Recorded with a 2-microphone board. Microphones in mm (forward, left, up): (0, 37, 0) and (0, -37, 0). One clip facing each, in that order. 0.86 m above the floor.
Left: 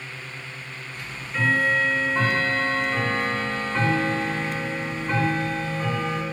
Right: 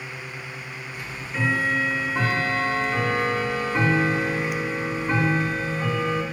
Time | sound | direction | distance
0.9 | ticking | 15° right (ahead or behind) | 1.1 m